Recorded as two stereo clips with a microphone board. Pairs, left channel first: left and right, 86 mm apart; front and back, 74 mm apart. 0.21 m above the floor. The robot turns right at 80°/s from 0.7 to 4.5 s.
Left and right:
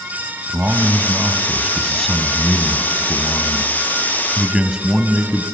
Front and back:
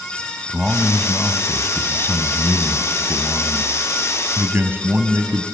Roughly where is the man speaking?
Right.